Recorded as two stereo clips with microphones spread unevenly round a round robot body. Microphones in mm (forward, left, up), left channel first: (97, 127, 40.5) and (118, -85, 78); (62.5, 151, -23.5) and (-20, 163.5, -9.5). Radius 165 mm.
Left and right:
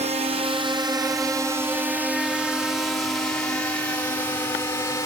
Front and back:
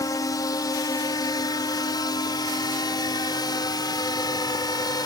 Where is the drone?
25° right; by 5.1 s 25° left.